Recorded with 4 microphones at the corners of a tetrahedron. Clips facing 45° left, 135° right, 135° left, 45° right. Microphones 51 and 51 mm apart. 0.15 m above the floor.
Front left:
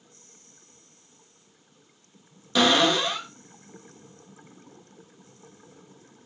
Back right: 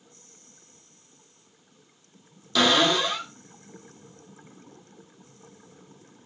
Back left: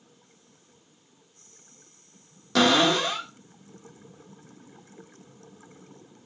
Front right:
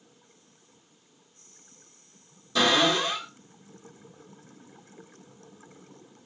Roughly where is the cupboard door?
Behind left.